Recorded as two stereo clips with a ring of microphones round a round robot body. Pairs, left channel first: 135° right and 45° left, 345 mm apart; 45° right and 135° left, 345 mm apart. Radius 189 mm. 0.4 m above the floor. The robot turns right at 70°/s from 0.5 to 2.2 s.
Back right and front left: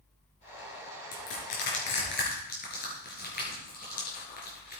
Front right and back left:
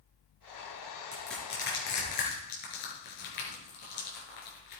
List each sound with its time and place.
1.1 s crushing: 145° right, 4.5 m; by 4.8 s 70° right, 4.5 m